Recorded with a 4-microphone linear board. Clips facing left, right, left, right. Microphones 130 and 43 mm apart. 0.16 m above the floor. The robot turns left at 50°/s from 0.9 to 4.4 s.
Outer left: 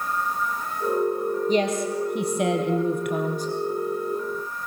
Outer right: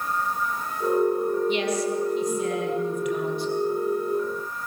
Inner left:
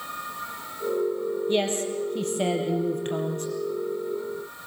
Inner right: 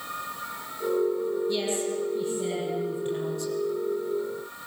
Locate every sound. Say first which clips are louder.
1.5 s a woman speaking: outer left 2 dB, inner left 3 dB; 140° left, 4 m; by 3.5 s 40° left, 4 m